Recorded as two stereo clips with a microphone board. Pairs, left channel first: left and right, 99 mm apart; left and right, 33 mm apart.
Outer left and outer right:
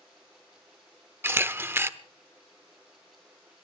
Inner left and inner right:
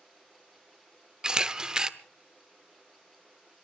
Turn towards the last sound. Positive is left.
turn(degrees=-20)  # may be behind; listen again after turning